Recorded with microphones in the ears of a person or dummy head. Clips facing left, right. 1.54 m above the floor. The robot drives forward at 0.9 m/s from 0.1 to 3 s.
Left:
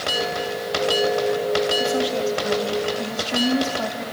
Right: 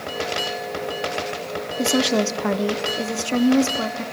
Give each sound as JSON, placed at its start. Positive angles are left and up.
{"t": 1.8, "sound": "a woman speaking", "side_deg": -65, "distance_m": 0.8}